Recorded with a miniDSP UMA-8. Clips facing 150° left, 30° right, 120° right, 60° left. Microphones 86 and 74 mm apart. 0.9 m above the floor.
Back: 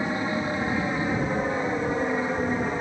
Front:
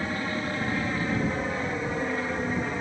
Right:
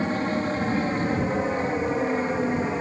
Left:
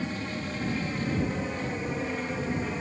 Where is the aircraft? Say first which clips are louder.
Back 3 dB, right 8 dB; 145° right; by 2.8 s 150° right.